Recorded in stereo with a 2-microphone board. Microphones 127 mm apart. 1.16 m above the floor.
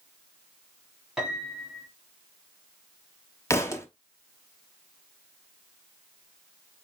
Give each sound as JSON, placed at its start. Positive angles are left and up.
{"t": 1.2, "sound": "a piano", "side_deg": -5, "distance_m": 1.7}
{"t": 3.5, "sound": "a thud", "side_deg": 20, "distance_m": 0.6}